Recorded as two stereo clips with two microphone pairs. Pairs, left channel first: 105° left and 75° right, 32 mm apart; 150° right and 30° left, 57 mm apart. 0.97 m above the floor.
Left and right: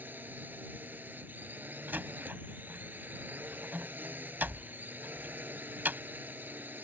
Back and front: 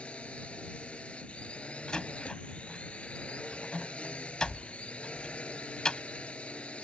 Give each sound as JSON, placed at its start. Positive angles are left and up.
{"t": 0.0, "sound": "a drone", "azimuth_deg": -80}
{"t": 1.9, "sound": "a door slam", "azimuth_deg": -75}